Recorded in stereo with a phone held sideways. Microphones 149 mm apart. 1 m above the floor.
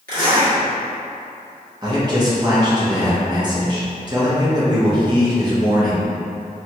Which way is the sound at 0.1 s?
75° right (ahead or behind).